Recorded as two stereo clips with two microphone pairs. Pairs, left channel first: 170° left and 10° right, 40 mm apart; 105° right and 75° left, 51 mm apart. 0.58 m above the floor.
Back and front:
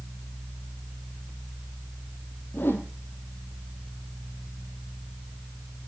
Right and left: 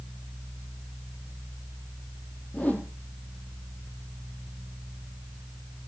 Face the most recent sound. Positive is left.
turn(degrees=-160)